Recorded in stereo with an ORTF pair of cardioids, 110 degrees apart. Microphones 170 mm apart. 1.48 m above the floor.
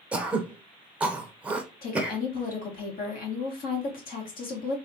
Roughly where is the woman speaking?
Ahead left.